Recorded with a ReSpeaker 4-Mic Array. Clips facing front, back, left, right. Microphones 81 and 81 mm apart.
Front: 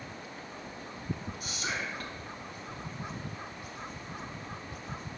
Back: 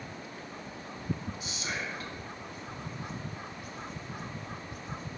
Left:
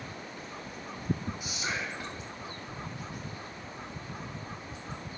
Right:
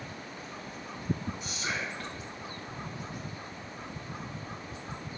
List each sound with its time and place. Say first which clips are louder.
1.4 s whispering: front 1 dB, even; 15° left, 1.8 m